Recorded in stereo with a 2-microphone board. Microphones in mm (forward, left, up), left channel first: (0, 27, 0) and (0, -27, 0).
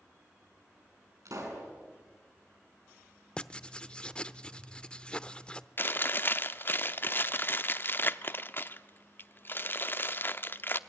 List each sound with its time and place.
1.2 s a pop: 75° right (ahead or behind), 6.5 m
3.4 s writing: 20° left (ahead or behind), 0.6 m
5.8 s chewing: 40° left (ahead or behind), 0.7 m